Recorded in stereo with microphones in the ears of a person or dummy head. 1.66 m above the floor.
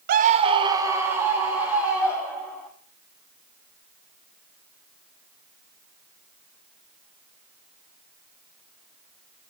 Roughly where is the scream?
Right.